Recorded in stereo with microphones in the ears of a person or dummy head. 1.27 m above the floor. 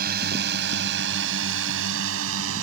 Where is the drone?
55° right (ahead or behind); by 2.6 s 85° right.